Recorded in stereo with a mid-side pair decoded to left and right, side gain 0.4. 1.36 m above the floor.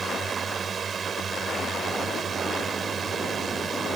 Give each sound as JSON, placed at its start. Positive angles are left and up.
{"t": 0.0, "sound": "a drone", "azimuth_deg": -50}